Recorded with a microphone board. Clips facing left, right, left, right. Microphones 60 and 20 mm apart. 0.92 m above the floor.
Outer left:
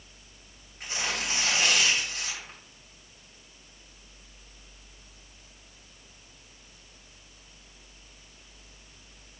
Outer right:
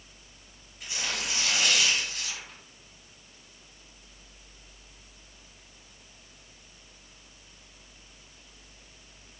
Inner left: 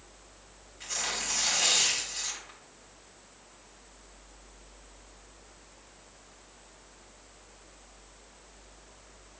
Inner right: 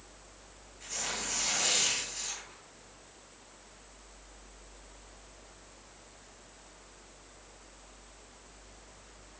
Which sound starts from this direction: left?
Tearing paper, at 0.8 s.